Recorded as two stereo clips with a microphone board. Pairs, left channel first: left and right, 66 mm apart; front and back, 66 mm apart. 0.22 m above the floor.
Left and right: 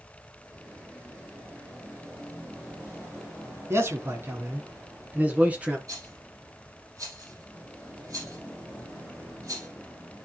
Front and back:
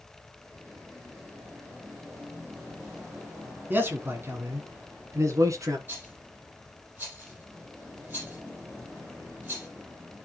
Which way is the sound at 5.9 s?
125° right.